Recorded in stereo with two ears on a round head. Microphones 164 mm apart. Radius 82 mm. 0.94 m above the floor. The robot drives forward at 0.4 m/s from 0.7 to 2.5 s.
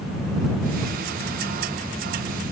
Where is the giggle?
I don't hear a giggle.